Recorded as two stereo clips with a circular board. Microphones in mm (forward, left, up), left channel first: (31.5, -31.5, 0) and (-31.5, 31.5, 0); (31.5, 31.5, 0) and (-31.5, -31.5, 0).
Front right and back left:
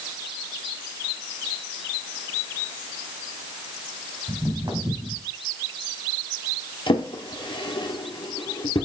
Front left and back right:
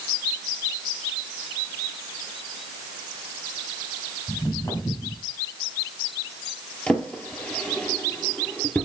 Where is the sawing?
No sawing in this recording.